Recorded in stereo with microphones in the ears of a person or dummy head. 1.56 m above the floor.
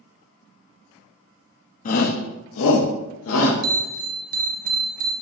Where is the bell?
55° right (ahead or behind), 1.1 m.